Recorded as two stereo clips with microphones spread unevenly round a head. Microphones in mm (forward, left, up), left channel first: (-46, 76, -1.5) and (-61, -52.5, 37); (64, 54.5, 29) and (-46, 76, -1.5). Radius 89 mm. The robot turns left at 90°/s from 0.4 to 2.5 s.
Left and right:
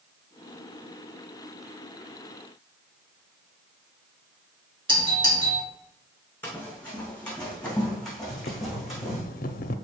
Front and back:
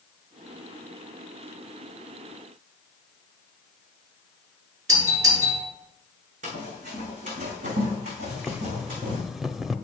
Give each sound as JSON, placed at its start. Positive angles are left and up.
{"t": 4.9, "sound": "a doorbell", "azimuth_deg": -150, "distance_m": 5.0}
{"t": 6.4, "sound": "running footsteps", "azimuth_deg": 165, "distance_m": 5.5}
{"t": 8.3, "sound": "boiling", "azimuth_deg": 65, "distance_m": 0.6}